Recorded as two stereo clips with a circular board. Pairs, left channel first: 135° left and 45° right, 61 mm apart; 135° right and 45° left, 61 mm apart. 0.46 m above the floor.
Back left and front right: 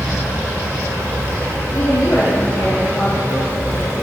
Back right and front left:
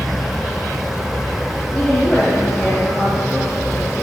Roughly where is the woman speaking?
Behind left.